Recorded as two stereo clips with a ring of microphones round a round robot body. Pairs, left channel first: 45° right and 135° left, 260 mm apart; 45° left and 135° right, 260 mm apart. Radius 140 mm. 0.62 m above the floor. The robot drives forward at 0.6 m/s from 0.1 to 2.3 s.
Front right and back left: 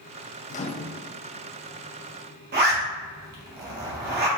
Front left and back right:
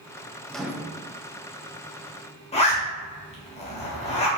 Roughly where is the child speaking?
I don't hear a child speaking.